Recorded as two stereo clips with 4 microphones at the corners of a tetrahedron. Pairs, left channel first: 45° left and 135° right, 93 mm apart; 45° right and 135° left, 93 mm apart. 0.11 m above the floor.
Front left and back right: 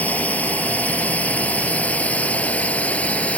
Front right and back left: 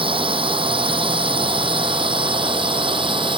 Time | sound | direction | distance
0.0 | a drone | 120° left | ?